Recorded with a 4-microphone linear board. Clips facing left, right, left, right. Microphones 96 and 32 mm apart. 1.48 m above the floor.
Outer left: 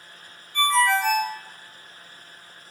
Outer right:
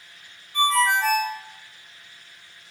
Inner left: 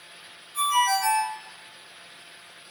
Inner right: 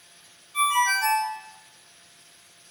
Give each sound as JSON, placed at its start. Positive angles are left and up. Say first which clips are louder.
{"t": 0.5, "sound": "a ringtone", "louder": "even, inner right 1 dB", "side_deg": -35, "distance_m": 1.1}